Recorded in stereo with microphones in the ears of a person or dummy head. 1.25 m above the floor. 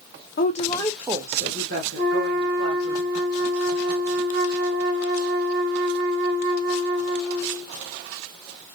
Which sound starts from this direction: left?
A woman speaking, at 0.4 s.